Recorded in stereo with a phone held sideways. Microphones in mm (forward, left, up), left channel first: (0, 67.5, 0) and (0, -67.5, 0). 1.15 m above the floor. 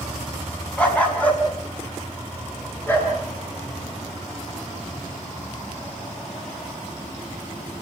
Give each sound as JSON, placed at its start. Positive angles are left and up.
{"t": 0.8, "sound": "a dog barking", "side_deg": 10, "distance_m": 4.5}